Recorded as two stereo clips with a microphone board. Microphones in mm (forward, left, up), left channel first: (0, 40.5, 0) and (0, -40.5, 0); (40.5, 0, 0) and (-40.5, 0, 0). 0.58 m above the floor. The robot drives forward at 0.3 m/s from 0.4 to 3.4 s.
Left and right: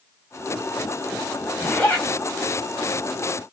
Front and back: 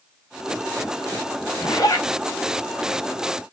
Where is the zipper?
30° left, 1.7 m.